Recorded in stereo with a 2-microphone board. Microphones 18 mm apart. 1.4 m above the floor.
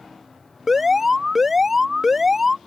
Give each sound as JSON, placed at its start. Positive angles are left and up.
{"t": 0.7, "sound": "an alarm", "side_deg": -15}